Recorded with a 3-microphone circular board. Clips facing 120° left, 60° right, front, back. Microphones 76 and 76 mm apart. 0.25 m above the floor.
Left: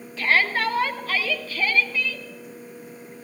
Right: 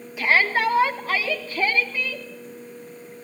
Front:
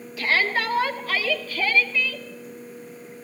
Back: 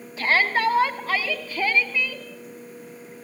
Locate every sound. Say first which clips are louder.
0.2 s a shout: right 2 dB, back 2 dB; 130° right, 2.5 m; by 2.3 s 115° right, 3 m